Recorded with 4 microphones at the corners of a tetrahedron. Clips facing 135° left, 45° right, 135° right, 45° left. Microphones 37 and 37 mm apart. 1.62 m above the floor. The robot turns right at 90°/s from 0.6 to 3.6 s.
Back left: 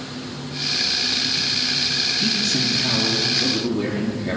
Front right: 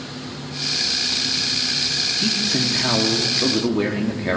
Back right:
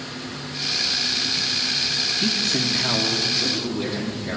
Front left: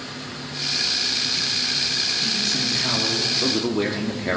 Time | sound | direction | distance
2.2 | a man speaking | 125° right | 0.9 m